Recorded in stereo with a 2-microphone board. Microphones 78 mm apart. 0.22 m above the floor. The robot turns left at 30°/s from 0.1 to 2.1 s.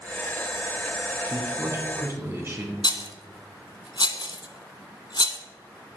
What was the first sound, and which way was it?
A man speaking, 45° right (ahead or behind).